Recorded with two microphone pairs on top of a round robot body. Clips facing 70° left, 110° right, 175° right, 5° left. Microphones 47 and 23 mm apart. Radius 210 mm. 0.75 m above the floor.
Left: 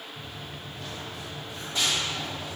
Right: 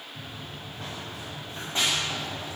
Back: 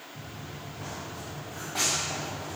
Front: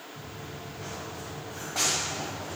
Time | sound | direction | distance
0.1 | running footsteps | 165° right | 8.5 m